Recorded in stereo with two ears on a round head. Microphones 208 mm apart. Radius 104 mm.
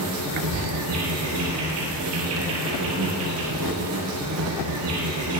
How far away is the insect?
About 3 m.